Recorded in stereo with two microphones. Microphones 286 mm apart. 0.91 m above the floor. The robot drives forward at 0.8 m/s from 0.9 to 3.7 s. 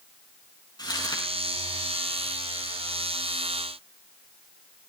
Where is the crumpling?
15° left (ahead or behind), 7.5 m.